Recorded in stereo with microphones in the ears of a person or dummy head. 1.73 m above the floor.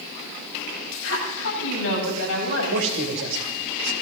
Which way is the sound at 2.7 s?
80° right.